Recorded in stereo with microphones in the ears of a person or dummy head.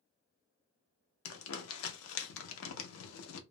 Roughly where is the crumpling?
Left.